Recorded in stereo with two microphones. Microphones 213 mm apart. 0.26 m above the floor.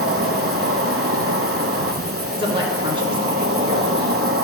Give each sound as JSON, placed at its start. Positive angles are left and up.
{"t": 0.0, "sound": "an insect", "side_deg": -85, "distance_m": 0.8}
{"t": 2.3, "sound": "a man speaking", "side_deg": -25, "distance_m": 2.5}